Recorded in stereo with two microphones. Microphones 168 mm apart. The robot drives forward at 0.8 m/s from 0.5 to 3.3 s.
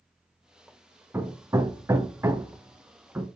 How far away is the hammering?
About 0.9 m.